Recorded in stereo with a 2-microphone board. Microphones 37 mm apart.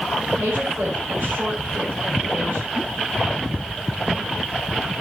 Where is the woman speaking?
70° right (ahead or behind), 5.5 m.